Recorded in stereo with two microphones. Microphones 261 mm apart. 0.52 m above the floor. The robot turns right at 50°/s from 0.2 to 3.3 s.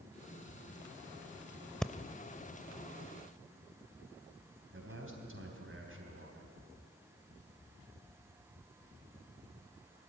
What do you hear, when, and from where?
1.8 s breathing: centre (ahead or behind), 0.6 m; by 1.9 s 5° left (ahead or behind), 0.6 m
4.7 s a man speaking: 50° right (ahead or behind), 3.5 m